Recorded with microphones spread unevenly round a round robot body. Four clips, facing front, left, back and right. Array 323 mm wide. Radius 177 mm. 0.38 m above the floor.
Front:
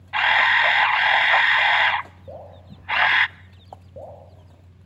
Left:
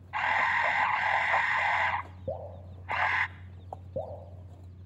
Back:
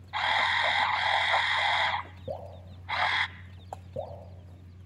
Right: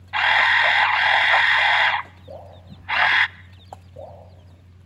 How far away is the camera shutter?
About 0.6 m.